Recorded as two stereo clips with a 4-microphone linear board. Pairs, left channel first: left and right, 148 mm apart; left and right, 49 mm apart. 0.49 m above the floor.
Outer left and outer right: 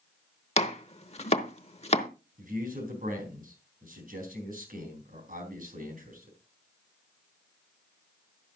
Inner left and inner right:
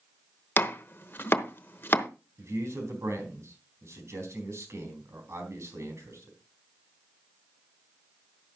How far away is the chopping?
About 0.9 m.